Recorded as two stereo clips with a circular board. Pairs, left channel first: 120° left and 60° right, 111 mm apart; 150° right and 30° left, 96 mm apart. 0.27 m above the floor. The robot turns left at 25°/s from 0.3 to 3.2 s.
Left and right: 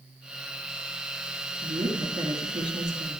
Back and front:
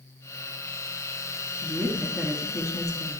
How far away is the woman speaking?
About 2 m.